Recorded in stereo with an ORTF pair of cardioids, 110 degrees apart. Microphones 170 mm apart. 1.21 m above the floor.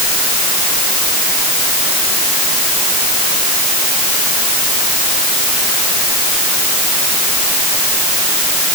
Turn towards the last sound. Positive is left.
No sound to turn to.